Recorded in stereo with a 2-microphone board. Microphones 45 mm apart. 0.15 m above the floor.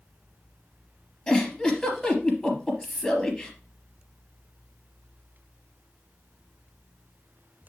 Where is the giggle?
5° left (ahead or behind), 3.5 m.